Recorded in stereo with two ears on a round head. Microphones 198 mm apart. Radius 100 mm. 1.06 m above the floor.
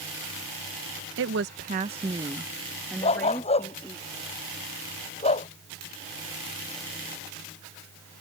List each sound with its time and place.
1.2 s a woman speaking: 60° right (ahead or behind); by 4.0 s 10° left (ahead or behind)
3.0 s a dog barking: 30° left (ahead or behind)